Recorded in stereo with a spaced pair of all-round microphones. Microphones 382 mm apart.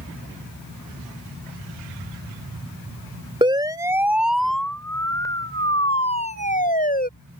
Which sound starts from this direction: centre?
A siren, at 3.4 s.